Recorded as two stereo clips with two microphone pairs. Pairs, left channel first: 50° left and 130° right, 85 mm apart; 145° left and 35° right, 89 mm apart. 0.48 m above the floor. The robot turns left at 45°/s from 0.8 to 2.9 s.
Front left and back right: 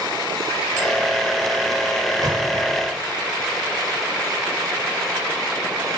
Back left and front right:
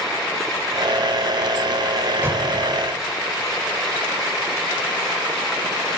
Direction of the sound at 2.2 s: 95° right.